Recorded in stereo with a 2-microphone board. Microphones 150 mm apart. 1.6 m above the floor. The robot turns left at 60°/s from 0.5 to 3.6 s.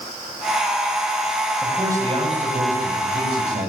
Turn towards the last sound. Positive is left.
turn(degrees=-120)